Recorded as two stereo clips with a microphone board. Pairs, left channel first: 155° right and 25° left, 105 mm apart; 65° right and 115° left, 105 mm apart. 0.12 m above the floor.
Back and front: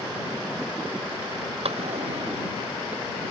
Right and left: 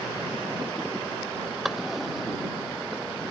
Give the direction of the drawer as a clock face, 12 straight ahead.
11 o'clock.